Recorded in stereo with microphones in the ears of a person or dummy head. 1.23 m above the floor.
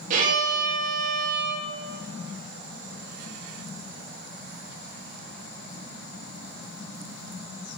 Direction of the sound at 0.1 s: 45° right (ahead or behind).